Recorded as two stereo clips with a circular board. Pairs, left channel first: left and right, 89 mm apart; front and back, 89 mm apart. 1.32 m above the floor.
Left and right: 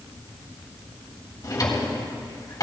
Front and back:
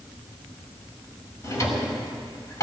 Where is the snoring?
No snoring in this recording.